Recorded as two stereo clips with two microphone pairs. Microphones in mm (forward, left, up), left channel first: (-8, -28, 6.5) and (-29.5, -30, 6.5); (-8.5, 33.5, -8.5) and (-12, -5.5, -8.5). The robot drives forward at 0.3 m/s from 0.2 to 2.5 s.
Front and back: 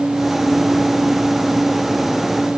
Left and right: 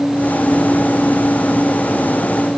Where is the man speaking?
I don't hear a man speaking.